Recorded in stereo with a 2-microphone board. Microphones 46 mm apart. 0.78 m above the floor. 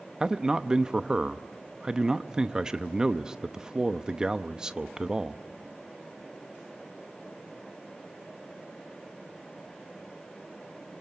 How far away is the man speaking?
About 0.8 m.